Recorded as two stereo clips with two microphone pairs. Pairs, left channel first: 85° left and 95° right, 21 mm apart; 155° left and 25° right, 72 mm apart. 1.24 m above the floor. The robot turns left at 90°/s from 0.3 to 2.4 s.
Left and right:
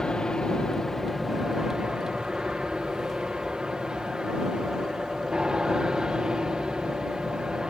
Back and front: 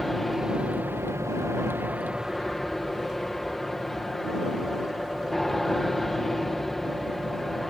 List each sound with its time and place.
0.0 s an aircraft: 70° left; by 7.7 s 120° right